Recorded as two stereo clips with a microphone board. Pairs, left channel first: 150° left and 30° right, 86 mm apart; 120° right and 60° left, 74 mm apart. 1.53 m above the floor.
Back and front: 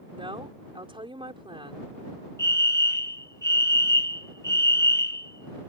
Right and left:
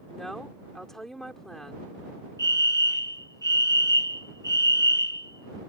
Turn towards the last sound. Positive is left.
turn(degrees=-160)